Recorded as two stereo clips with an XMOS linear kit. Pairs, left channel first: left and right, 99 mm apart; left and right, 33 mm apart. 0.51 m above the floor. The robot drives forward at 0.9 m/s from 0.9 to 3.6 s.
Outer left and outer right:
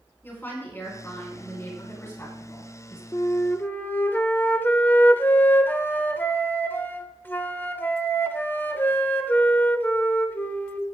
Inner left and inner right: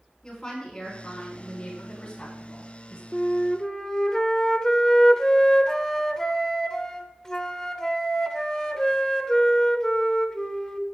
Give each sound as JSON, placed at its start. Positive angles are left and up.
{"t": 0.2, "sound": "a woman speaking", "side_deg": 25, "distance_m": 5.0}
{"t": 3.1, "sound": "a flute", "side_deg": 30, "distance_m": 0.6}